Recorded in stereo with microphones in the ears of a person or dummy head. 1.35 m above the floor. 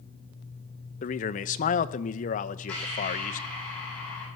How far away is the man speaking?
About 0.7 m.